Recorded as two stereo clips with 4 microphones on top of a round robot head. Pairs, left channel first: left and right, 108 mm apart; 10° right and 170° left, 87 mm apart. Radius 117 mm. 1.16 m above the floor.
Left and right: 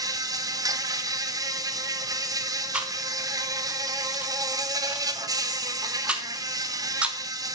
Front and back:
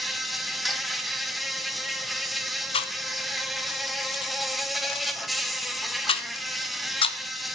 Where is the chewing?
10° right, 0.8 m.